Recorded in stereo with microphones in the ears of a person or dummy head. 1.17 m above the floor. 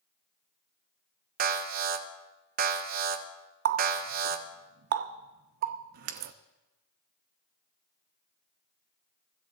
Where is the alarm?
50° right (ahead or behind), 1.0 m.